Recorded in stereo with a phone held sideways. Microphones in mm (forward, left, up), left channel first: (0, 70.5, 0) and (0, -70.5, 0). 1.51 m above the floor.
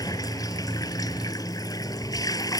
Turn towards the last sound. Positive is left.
turn(degrees=25)  # may be behind; listen again after turning